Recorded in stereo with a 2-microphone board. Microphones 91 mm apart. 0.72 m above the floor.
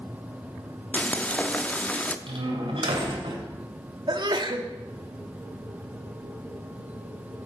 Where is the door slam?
75° right (ahead or behind), 2.5 m.